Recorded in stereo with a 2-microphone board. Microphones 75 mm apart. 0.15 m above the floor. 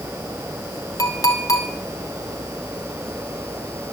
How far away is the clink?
About 2.0 m.